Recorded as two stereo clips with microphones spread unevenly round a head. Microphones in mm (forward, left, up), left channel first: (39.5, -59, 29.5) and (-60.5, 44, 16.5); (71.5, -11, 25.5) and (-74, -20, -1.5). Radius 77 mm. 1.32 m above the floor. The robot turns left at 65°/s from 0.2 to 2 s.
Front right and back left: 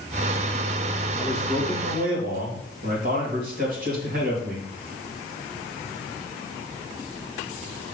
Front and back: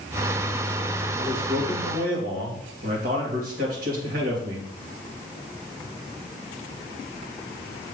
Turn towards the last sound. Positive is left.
turn(degrees=155)